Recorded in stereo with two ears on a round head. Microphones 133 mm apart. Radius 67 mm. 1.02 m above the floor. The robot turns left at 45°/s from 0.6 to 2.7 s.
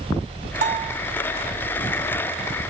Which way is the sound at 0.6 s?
55° right (ahead or behind).